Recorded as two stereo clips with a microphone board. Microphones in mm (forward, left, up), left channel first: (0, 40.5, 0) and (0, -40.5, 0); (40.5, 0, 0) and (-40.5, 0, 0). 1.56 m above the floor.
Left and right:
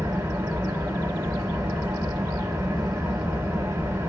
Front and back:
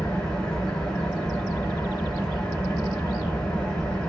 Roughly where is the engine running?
Right.